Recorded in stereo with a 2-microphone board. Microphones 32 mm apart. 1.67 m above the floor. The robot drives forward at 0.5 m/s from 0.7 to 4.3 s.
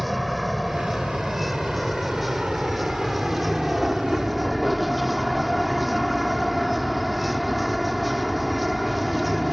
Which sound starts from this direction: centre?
A vehicle, at 0.0 s.